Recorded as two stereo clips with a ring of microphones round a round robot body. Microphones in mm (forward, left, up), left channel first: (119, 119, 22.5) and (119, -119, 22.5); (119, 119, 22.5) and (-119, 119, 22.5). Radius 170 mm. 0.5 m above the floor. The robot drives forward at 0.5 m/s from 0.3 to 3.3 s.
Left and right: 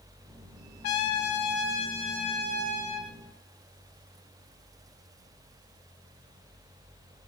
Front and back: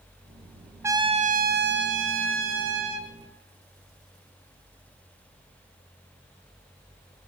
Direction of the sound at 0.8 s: 100° left.